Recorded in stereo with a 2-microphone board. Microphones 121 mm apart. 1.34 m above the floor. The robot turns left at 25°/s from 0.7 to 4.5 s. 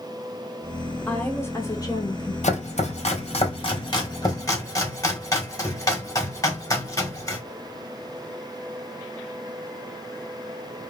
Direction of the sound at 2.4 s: 80° left.